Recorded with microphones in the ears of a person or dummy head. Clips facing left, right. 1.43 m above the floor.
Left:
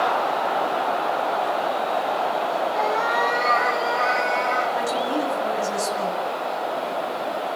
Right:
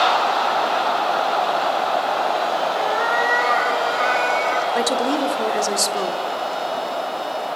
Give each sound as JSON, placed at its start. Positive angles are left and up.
{"t": 2.8, "sound": "a cat meowing", "side_deg": -20, "distance_m": 4.0}
{"t": 4.8, "sound": "a woman speaking", "side_deg": -70, "distance_m": 4.0}